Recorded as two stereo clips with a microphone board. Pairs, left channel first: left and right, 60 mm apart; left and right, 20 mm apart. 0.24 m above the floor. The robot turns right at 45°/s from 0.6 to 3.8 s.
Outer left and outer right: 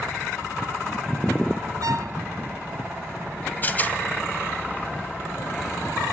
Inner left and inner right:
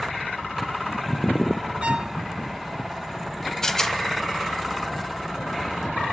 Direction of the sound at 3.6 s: 30° left (ahead or behind).